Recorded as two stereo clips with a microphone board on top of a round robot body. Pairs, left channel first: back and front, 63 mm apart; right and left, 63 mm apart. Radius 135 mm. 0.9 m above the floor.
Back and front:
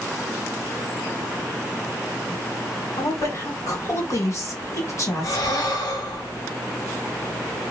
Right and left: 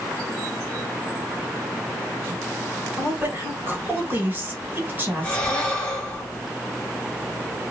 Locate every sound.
3.0 s a woman speaking: 145° left, 1.8 m
5.2 s breathing: 165° right, 1.2 m